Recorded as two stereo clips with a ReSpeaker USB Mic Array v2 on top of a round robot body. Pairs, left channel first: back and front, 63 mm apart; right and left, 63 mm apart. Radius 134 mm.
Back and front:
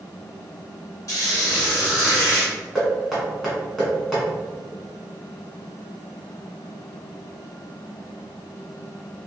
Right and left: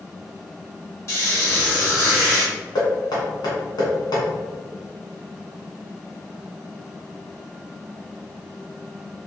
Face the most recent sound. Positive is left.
turn(degrees=-95)